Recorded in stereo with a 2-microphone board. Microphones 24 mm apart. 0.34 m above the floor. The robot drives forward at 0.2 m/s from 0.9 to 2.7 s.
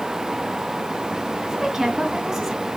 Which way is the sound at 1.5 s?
25° right (ahead or behind).